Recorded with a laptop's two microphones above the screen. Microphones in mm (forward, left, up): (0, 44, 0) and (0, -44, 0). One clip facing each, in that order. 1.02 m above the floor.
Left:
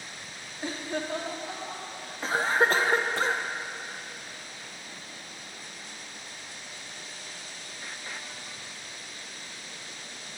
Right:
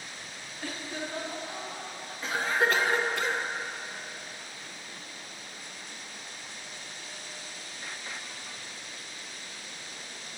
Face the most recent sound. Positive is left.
turn(degrees=30)  # may be behind; listen again after turning